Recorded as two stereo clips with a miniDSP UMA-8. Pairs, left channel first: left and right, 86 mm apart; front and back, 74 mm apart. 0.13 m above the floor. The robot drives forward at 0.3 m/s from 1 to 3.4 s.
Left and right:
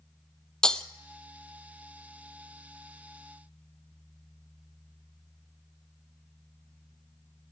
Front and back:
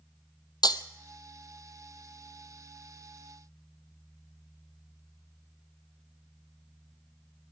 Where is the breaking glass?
10° left, 0.8 m.